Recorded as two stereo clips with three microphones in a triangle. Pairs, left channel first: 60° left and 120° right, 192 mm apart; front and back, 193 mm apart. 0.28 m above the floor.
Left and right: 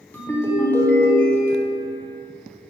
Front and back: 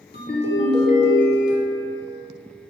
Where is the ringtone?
20° right, 0.8 m.